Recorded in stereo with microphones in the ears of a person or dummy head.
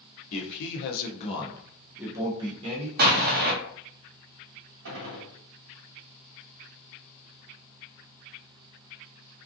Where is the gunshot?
70° right (ahead or behind), 0.9 m.